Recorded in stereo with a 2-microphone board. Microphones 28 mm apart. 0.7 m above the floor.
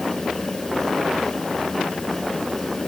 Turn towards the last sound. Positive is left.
No sound to turn to.